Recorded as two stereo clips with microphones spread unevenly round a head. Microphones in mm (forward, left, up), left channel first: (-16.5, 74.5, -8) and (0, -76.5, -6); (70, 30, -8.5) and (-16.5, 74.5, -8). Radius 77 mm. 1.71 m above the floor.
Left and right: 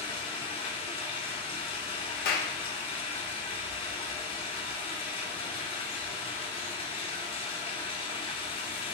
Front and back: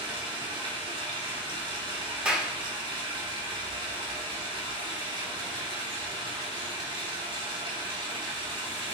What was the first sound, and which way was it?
Running water, 140° left.